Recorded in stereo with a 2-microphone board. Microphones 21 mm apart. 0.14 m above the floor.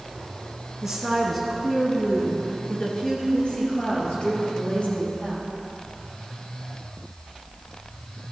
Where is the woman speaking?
15° right (ahead or behind), 1.6 m; by 5.5 s 70° left (ahead or behind), 5 m.